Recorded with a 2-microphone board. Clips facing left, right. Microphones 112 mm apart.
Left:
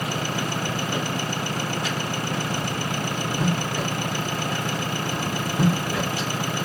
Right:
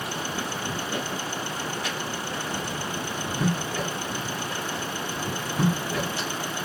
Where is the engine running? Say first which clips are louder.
Left 4 dB; 65° left (ahead or behind).